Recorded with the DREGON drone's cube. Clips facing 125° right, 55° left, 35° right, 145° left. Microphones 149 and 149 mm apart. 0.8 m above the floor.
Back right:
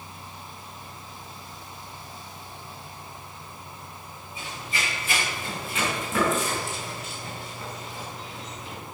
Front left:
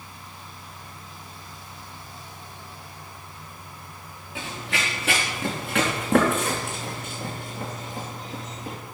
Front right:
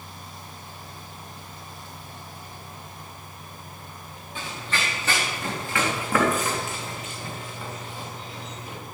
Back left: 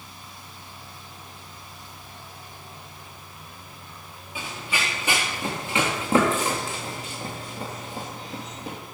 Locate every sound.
4.3 s running footsteps: 60° left, 4 m; by 8.8 s 105° left, 4 m